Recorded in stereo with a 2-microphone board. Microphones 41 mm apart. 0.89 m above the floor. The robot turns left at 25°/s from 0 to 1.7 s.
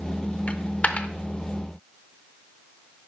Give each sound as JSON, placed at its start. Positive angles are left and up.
{"t": 0.5, "sound": "a dropped coin", "side_deg": 35, "distance_m": 0.6}